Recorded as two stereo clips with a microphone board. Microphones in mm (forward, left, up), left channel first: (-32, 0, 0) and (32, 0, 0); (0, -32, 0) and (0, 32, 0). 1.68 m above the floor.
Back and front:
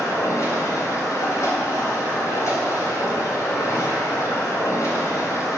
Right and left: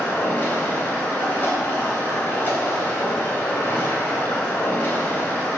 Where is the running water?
145° right, 3.5 m.